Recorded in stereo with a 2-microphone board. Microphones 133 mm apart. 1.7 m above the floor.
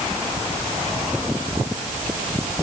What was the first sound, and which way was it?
Only background noise.